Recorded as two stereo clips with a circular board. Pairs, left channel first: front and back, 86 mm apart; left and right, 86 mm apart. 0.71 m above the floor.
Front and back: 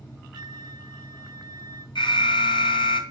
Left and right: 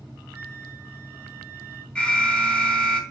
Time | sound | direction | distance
0.3 | a flute | 155° right | 1.1 m
1.9 | an alarm | 15° left | 3.5 m